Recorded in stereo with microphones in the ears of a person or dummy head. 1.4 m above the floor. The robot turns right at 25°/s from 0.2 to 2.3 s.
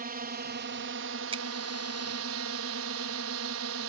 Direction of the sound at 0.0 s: 130° right.